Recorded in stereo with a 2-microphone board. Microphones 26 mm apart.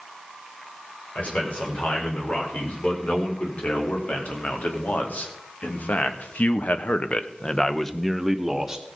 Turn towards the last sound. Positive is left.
turn(degrees=-15)  # may be behind; listen again after turning